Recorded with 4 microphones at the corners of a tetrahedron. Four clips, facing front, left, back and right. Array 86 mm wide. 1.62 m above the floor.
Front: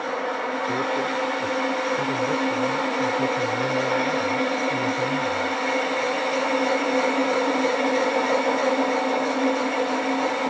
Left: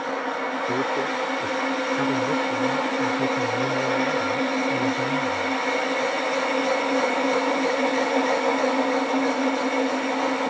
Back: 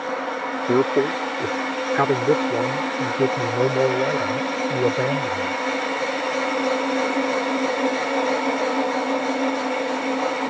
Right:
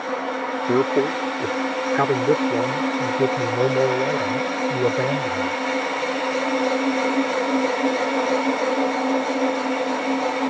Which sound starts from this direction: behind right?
A man speaking, at 0.7 s.